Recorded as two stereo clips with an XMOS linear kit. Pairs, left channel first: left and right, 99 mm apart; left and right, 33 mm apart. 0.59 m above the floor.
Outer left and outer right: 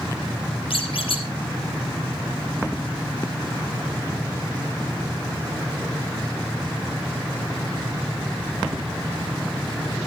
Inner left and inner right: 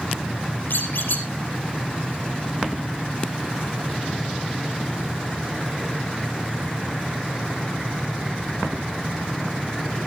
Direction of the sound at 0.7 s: 70° left (ahead or behind).